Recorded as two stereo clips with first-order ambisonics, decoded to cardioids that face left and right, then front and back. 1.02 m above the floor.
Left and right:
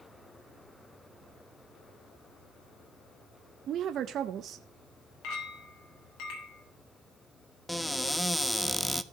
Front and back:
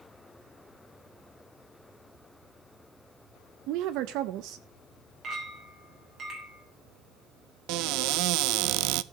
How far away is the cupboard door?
About 0.5 m.